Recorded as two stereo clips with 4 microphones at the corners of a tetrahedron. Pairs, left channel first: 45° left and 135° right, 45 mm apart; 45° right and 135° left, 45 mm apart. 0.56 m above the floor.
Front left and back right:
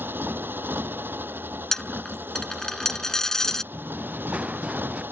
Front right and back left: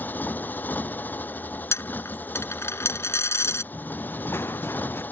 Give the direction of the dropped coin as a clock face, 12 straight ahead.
1 o'clock.